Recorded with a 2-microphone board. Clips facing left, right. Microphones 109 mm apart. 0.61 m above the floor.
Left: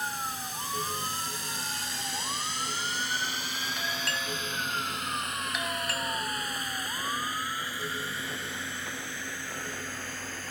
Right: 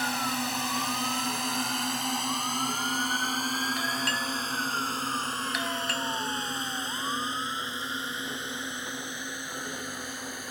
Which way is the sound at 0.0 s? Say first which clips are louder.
Right 5 dB; 75° right (ahead or behind).